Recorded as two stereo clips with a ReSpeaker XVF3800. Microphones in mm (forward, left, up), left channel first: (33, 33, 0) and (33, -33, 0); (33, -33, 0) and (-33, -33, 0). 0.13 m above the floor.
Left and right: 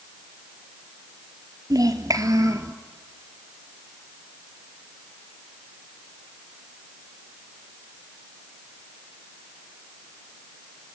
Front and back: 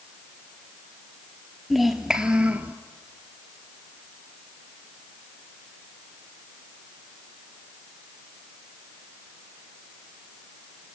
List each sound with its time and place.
1.7 s a child speaking: 90° right, 1.9 m; by 2.7 s 115° right, 2.0 m